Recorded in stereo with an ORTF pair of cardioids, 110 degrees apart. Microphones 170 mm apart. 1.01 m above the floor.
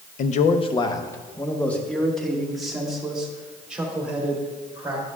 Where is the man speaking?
50° left, 0.6 m; by 5.0 s 10° right, 3 m.